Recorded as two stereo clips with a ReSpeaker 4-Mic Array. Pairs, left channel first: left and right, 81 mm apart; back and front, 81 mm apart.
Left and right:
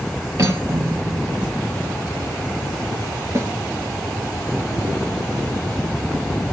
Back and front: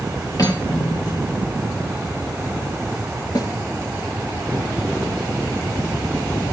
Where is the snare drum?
145° right, 2 m.